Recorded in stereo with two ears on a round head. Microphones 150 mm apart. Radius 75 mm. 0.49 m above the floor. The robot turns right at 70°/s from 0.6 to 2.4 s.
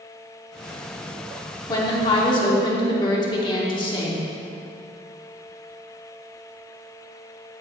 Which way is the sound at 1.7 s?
25° left (ahead or behind).